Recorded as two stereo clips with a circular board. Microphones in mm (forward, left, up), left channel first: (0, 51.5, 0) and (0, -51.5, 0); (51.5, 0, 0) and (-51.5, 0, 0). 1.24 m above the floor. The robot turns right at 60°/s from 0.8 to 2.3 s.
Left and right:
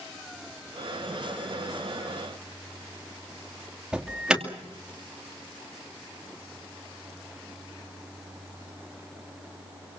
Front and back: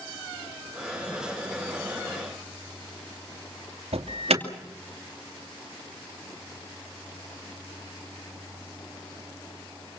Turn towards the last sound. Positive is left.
turn(degrees=-175)